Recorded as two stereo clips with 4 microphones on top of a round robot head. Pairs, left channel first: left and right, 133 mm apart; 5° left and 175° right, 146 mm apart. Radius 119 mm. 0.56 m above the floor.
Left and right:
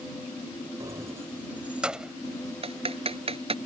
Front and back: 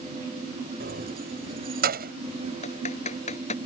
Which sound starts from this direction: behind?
Keys jangling, at 0.8 s.